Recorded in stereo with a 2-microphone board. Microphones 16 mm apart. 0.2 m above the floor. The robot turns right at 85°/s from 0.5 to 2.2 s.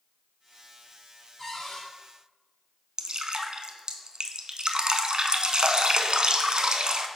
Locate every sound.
1.4 s a cupboard door: 15° left, 2.5 m; by 1.9 s 50° left, 2.5 m
3.0 s dripping: 60° right (ahead or behind), 0.6 m